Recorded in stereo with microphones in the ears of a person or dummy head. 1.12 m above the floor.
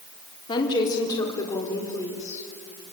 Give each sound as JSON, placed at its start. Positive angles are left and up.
{"t": 0.5, "sound": "a woman speaking", "side_deg": 20, "distance_m": 3.0}